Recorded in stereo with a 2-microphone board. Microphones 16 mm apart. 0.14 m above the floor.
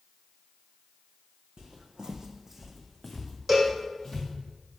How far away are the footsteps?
About 0.6 m.